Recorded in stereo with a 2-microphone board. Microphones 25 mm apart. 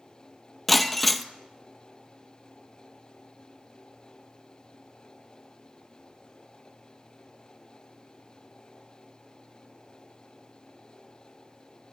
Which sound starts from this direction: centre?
Breaking glass, at 0.7 s.